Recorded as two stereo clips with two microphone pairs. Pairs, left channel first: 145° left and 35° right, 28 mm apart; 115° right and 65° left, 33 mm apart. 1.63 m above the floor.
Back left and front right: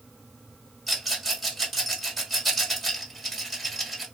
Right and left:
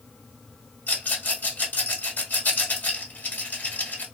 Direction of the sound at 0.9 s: 130° right.